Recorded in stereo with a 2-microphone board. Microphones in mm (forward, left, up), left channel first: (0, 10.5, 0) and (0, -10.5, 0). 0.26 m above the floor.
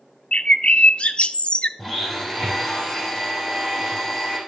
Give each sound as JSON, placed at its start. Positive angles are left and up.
{"t": 0.3, "sound": "a bird", "side_deg": 60, "distance_m": 0.5}
{"t": 1.8, "sound": "a blender", "side_deg": 5, "distance_m": 6.0}